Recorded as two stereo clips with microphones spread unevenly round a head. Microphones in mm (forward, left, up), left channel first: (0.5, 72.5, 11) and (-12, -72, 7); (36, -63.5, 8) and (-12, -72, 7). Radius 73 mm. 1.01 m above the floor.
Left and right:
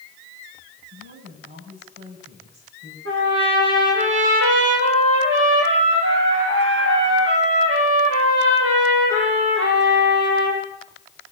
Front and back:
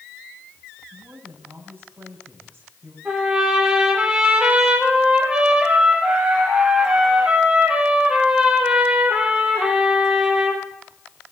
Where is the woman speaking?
125° right, 6.5 m.